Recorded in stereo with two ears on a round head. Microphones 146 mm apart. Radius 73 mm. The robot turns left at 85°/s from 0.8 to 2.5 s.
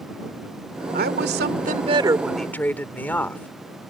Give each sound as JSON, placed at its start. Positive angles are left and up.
{"t": 0.9, "sound": "a woman speaking", "azimuth_deg": -60}